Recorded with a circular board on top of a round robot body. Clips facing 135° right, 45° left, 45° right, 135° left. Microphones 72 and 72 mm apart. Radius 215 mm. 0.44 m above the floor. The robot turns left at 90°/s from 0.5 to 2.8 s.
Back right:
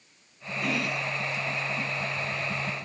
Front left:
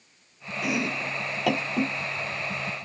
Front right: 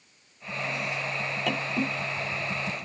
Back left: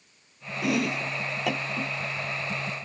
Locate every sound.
0.6 s chopping: 130° left; by 2.9 s 65° right